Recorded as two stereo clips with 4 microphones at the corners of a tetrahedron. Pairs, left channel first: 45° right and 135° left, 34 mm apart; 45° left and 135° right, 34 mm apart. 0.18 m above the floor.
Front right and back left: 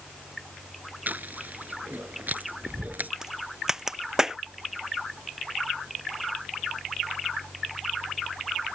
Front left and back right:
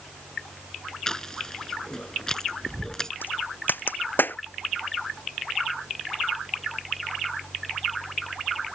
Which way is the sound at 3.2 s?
55° left.